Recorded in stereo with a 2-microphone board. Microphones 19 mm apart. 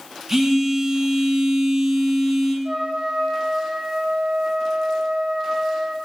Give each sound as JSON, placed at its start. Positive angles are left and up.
{"t": 0.3, "sound": "a phone buzzing", "side_deg": -20, "distance_m": 0.9}
{"t": 2.6, "sound": "a trumpet", "side_deg": -55, "distance_m": 0.8}